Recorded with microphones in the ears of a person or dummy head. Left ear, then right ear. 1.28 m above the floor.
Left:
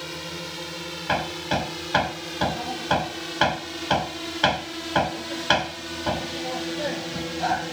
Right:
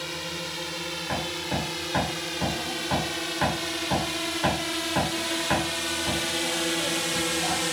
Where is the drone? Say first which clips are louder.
Right 1 dB; 15° right (ahead or behind); by 7.7 s 40° right (ahead or behind).